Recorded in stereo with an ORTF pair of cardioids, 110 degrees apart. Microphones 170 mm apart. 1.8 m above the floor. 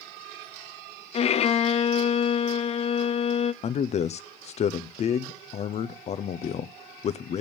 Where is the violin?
40° left, 0.5 m.